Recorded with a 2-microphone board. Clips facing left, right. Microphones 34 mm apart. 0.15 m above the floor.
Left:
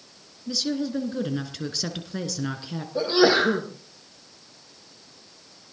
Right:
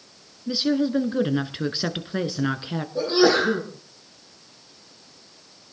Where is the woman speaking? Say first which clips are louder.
Right 5 dB; 30° right (ahead or behind), 1.8 m.